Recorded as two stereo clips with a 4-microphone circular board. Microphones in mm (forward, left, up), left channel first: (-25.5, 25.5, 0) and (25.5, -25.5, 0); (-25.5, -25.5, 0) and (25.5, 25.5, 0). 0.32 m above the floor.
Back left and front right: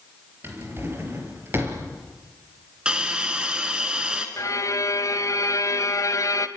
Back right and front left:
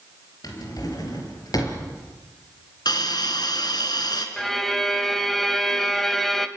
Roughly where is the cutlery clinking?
No cutlery clinking in this recording.